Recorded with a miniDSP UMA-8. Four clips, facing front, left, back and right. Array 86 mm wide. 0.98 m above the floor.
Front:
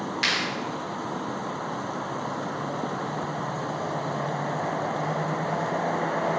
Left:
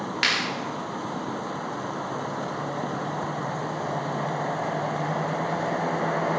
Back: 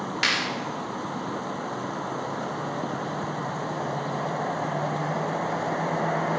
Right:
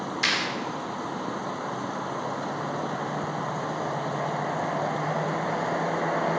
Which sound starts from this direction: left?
A clap, at 0.2 s.